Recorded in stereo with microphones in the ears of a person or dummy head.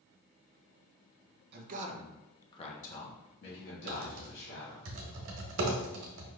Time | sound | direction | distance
1.5 | a man speaking | 55° right (ahead or behind) | 1.2 m
3.9 | typing on a keyboard | 60° right (ahead or behind) | 0.9 m